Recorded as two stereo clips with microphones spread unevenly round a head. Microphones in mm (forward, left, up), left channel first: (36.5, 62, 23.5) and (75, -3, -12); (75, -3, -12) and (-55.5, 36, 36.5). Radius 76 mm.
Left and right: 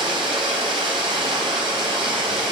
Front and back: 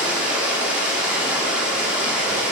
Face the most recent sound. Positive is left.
turn(degrees=-115)